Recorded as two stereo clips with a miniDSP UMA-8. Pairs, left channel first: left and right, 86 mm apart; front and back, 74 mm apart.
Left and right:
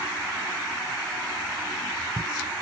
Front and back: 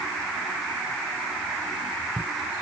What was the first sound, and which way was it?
Only background noise.